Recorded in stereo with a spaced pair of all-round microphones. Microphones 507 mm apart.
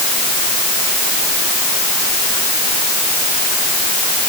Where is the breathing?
No breathing in this recording.